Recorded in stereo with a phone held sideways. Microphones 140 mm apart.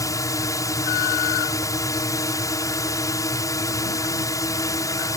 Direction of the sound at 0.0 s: 25° left (ahead or behind).